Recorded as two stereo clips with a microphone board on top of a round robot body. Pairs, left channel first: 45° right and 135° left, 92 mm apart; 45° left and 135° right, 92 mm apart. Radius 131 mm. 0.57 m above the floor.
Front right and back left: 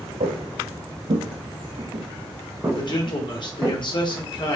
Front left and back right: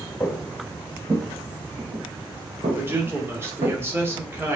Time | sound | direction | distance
0.2 | footsteps | 130° left | 1.3 m
2.8 | a man speaking | 70° right | 2.5 m